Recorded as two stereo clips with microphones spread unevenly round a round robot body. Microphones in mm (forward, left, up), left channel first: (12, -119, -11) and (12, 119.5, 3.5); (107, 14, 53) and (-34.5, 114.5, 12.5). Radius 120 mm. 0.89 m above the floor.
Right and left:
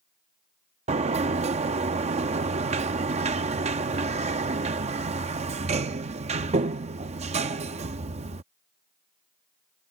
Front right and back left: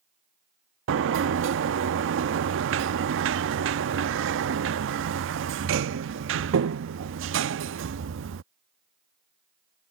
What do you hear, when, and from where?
0.9 s a sliding door: 155° left